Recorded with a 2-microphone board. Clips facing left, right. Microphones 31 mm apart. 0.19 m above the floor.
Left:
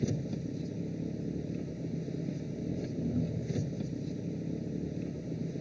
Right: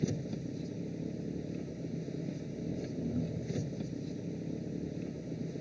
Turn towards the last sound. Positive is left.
turn(degrees=0)  # may be behind; listen again after turning